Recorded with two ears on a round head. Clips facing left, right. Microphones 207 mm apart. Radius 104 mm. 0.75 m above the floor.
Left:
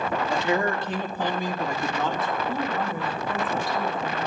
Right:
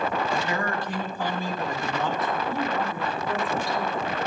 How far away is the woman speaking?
About 1.9 m.